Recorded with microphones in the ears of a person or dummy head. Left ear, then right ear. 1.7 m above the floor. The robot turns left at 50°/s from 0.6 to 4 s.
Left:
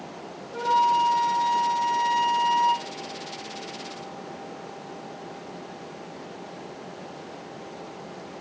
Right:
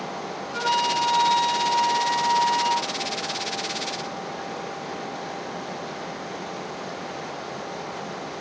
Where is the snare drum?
I don't hear a snare drum.